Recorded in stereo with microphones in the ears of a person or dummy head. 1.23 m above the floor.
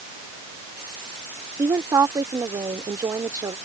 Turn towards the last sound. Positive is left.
turn(degrees=-20)  # may be behind; listen again after turning